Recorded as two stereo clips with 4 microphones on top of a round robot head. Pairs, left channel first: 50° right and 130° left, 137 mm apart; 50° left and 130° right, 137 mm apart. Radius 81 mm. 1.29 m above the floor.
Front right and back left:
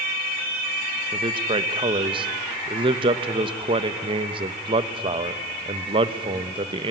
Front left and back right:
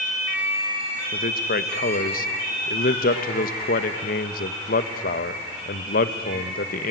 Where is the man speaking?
75° left, 1.2 m.